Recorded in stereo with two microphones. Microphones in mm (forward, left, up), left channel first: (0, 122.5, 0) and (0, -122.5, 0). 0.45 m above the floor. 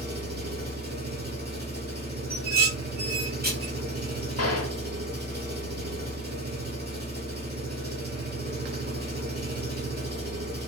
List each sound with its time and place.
0.0 s an engine running: 40° right (ahead or behind), 1.1 m
2.3 s dishes clattering: 40° right (ahead or behind), 0.9 m
4.4 s a gunshot: 75° left (ahead or behind), 0.7 m